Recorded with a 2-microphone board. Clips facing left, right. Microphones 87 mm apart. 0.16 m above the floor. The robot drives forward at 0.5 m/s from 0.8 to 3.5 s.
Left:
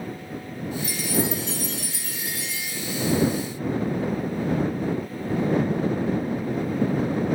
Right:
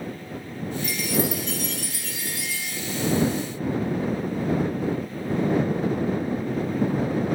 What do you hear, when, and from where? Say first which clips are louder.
0.8 s a chime: right 1 dB; 35° left (ahead or behind), 1.4 m; by 2.8 s 25° left (ahead or behind), 1.9 m